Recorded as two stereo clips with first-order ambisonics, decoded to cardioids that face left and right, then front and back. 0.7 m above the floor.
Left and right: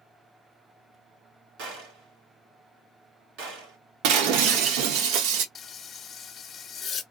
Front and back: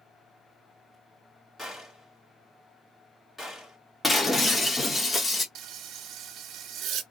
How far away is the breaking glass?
About 0.8 m.